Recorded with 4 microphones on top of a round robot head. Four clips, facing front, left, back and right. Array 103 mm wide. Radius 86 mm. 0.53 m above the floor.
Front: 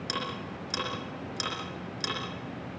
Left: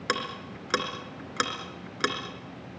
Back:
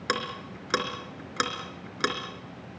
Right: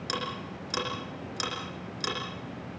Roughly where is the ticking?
Behind left.